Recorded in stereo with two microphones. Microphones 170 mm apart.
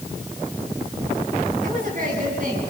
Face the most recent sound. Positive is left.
turn(degrees=-50)  # may be behind; listen again after turning